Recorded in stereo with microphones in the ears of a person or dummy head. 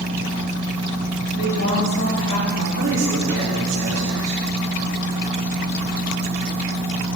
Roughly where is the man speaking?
Right.